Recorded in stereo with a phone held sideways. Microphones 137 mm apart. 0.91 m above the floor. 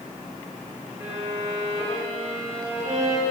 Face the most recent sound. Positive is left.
turn(degrees=-20)  # may be behind; listen again after turning